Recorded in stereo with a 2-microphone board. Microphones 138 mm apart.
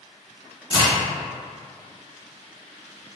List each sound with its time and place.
0.7 s a crack: 40° left (ahead or behind), 1.5 m